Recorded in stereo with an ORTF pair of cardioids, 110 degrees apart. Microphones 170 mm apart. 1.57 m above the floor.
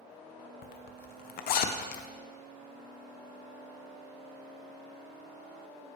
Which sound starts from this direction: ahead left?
A zipper, at 0.6 s.